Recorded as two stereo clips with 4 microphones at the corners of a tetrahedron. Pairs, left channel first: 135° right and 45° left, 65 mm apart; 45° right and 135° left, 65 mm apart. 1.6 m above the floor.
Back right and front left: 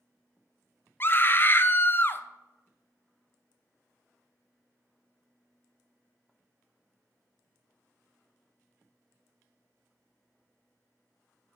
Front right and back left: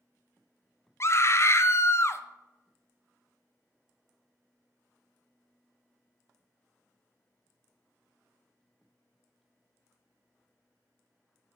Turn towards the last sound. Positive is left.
turn(degrees=-85)